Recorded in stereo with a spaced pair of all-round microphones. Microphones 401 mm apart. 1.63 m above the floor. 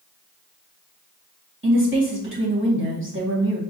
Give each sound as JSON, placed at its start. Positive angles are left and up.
{"t": 1.6, "sound": "a woman speaking", "side_deg": -30, "distance_m": 1.6}